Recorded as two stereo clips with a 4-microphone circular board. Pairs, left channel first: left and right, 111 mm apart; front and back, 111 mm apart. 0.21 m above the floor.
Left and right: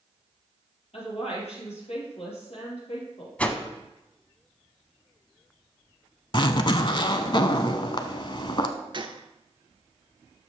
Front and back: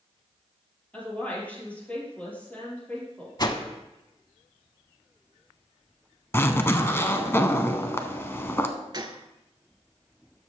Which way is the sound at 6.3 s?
65° left.